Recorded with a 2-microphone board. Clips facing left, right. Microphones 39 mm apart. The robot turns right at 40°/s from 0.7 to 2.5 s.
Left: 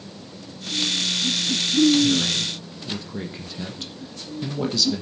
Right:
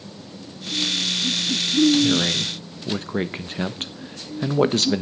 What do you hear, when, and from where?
2.0 s a man speaking: 30° right (ahead or behind), 1.1 m; by 5.0 s 50° right (ahead or behind), 1.1 m